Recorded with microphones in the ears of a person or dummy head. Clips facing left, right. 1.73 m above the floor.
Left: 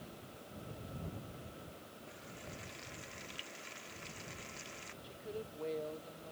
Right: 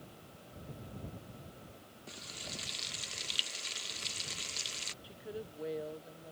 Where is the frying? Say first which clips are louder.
Right 3 dB; 35° right (ahead or behind).